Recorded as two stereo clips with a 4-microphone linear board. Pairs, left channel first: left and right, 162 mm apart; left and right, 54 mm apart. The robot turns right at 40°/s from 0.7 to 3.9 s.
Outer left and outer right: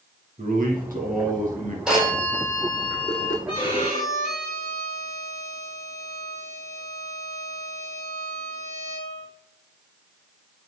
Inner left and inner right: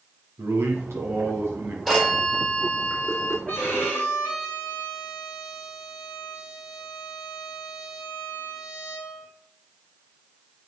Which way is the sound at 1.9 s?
5° right.